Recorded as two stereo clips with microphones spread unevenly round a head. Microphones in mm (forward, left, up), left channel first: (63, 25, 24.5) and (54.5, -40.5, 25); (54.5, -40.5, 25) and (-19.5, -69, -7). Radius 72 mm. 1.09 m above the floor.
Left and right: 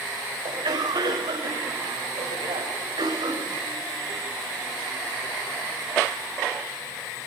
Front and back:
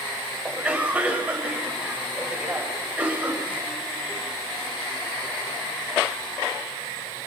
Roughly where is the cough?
Right.